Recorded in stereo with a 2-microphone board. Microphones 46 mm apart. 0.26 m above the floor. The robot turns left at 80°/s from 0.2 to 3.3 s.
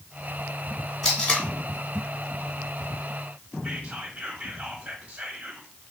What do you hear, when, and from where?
1.0 s tape being pulled: 5° right (ahead or behind), 1.8 m; by 1.5 s 25° left (ahead or behind), 1.8 m
3.6 s whispering: 25° right (ahead or behind), 1.1 m